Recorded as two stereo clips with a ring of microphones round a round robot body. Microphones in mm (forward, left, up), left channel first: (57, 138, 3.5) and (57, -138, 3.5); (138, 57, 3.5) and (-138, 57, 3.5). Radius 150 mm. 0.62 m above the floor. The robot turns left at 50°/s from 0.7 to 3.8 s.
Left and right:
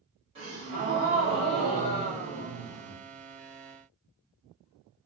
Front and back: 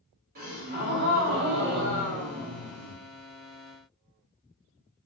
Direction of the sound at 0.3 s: 150° right.